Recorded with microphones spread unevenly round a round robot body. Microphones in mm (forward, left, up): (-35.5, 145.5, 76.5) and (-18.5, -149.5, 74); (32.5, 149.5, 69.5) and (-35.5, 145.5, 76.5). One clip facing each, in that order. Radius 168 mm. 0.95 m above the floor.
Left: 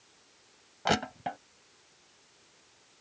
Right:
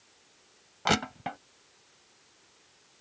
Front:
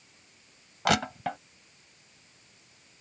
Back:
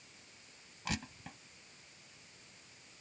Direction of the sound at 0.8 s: 5° right.